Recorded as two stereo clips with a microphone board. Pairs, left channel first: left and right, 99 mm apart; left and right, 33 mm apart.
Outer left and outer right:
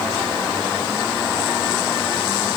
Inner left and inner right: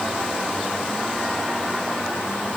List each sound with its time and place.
Only background noise.